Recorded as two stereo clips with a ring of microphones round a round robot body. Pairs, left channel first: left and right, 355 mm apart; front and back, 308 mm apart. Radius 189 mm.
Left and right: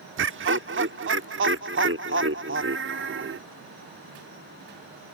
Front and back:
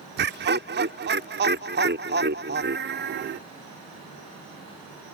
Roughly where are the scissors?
No scissors in this recording.